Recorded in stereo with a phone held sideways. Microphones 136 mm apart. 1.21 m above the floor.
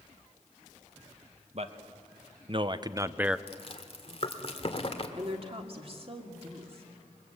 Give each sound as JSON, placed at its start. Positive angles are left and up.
{"t": 1.5, "sound": "a man speaking", "side_deg": -55, "distance_m": 1.5}
{"t": 3.5, "sound": "chewing", "side_deg": 45, "distance_m": 1.9}
{"t": 5.2, "sound": "a woman speaking", "side_deg": -45, "distance_m": 2.5}